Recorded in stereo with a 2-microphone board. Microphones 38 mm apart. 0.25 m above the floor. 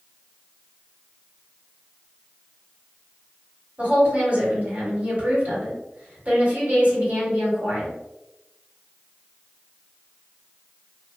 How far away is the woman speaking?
About 1.6 m.